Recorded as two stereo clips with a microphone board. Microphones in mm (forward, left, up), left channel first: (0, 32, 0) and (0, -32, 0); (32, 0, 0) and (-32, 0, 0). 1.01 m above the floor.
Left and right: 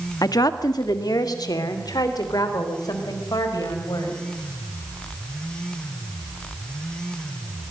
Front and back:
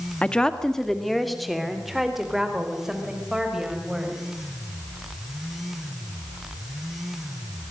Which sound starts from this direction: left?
A woman speaking, at 0.2 s.